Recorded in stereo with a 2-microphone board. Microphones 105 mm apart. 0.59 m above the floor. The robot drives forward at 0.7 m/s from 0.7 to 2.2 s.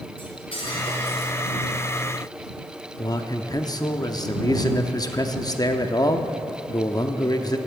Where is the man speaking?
40° left (ahead or behind), 0.7 m.